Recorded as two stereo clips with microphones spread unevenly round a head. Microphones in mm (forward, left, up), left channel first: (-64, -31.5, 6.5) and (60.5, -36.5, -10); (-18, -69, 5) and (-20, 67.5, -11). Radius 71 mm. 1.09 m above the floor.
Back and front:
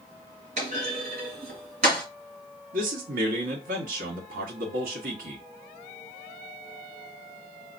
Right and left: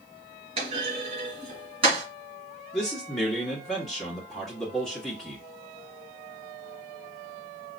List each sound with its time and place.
0.6 s a clunk: 35° left, 2 m
2.7 s a man speaking: straight ahead, 1.5 m